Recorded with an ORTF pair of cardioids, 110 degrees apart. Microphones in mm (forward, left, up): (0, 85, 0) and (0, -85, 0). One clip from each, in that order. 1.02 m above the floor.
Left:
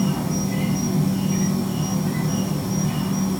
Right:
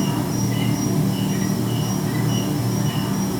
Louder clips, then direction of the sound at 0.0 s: Right 1 dB; 15° right.